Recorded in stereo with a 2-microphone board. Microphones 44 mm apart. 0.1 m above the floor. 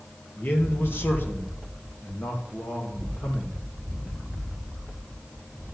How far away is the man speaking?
About 2 m.